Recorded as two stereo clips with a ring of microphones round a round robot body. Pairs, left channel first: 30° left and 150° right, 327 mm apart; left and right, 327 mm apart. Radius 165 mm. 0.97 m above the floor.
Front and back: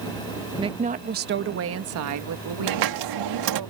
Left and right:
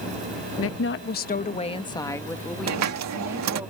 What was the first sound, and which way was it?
A woman speaking, 135° left.